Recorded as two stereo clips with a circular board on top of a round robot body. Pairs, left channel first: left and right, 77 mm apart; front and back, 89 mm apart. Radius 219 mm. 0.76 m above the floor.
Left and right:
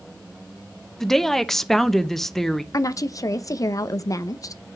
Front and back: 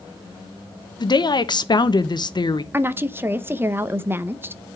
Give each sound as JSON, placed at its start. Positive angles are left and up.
{"t": 1.0, "sound": "a woman speaking", "azimuth_deg": 5, "distance_m": 1.3}
{"t": 2.7, "sound": "a woman speaking", "azimuth_deg": 120, "distance_m": 1.1}